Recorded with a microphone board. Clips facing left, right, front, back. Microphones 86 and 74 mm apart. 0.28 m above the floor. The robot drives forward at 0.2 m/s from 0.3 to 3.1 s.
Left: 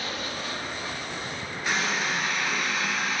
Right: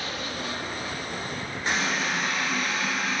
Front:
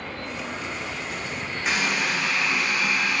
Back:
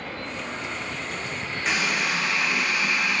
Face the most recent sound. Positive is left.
turn(degrees=-130)